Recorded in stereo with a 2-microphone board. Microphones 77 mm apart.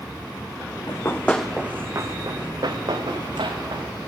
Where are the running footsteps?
45° left (ahead or behind), 0.7 m; by 3.9 s 70° right (ahead or behind), 2 m.